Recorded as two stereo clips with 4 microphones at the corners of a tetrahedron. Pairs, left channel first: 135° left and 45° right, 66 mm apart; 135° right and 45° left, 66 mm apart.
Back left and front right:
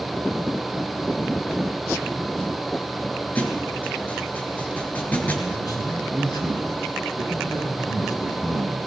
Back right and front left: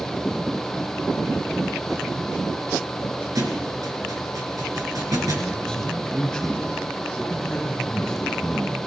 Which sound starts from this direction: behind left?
A man speaking, at 5.5 s.